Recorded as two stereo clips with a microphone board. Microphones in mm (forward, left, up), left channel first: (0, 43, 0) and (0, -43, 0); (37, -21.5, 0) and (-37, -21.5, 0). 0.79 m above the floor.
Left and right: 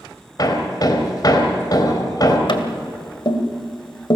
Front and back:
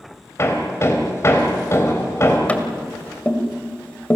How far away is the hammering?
About 3 m.